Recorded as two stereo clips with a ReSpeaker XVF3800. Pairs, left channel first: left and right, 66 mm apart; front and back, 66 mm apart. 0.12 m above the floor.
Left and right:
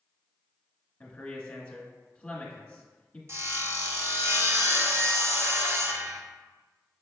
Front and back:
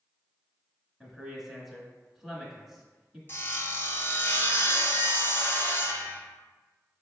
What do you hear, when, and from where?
1.0 s a man speaking: 110° left, 1.2 m
3.3 s sawing: 50° right, 0.8 m